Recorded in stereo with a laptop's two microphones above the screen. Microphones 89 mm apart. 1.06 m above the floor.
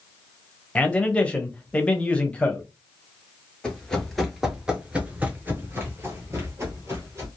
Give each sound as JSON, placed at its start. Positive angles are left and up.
{"t": 0.8, "sound": "a man speaking", "side_deg": 15, "distance_m": 0.6}
{"t": 3.6, "sound": "running footsteps", "side_deg": 10, "distance_m": 1.2}